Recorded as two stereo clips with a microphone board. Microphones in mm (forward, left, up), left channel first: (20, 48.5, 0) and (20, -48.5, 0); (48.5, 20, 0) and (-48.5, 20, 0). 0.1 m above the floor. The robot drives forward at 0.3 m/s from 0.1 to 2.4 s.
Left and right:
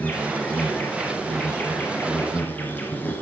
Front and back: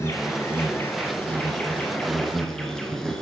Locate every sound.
0.0 s an insect: 30° left, 1.6 m; by 3.2 s 75° left, 1.4 m